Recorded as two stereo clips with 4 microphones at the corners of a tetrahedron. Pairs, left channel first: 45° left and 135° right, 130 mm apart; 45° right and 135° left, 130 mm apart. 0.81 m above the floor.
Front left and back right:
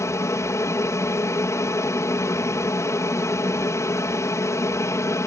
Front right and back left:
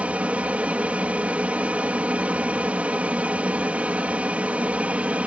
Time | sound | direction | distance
0.0 | an aircraft | 70° left | ?